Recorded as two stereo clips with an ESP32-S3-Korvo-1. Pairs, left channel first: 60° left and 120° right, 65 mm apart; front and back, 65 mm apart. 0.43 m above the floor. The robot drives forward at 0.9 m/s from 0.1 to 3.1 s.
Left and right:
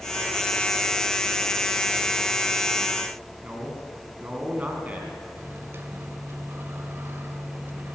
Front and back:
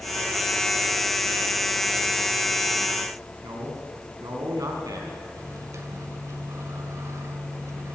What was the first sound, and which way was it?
A man speaking, straight behind.